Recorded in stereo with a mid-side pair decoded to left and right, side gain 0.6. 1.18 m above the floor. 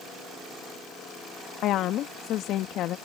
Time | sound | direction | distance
1.6 | a woman speaking | 60° left | ?